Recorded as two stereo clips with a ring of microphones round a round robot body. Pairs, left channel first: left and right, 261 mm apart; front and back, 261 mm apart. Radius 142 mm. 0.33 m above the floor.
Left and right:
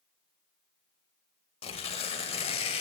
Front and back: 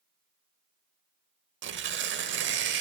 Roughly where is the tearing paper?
Behind left.